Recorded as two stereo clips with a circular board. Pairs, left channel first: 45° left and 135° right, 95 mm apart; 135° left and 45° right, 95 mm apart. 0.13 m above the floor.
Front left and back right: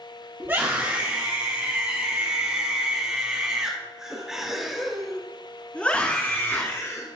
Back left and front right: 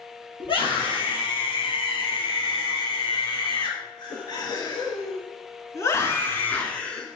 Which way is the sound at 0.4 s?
160° left.